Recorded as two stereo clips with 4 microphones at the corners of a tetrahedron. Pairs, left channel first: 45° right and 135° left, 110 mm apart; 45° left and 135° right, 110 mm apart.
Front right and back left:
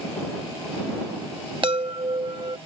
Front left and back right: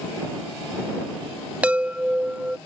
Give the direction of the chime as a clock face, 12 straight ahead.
7 o'clock.